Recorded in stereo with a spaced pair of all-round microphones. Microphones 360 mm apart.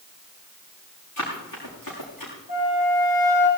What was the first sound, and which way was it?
Running footsteps, 55° left (ahead or behind).